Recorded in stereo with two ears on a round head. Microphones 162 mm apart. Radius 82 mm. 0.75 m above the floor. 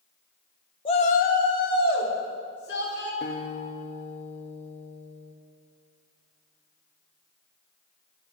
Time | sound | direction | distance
0.8 | a shout | 30° left (ahead or behind) | 0.6 m
3.2 | a guitar | 40° left (ahead or behind) | 0.6 m